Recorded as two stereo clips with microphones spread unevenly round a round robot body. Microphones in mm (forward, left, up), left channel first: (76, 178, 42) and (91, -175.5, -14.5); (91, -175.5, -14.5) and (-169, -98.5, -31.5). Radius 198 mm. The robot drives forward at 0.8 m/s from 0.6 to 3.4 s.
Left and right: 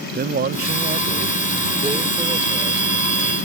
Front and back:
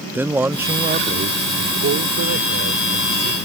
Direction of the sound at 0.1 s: 120° right.